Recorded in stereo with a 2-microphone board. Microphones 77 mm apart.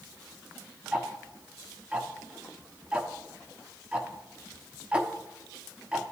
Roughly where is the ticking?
Centre.